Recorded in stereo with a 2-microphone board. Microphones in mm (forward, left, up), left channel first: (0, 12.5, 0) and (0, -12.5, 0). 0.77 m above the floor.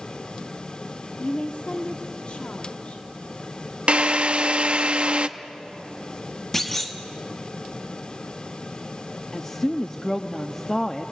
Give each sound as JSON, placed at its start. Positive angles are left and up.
{"t": 1.2, "sound": "a woman speaking", "side_deg": 50, "distance_m": 1.3}
{"t": 3.9, "sound": "a drill", "side_deg": -45, "distance_m": 0.7}
{"t": 6.5, "sound": "a clunk", "side_deg": 10, "distance_m": 1.6}
{"t": 9.3, "sound": "a woman speaking", "side_deg": 20, "distance_m": 0.7}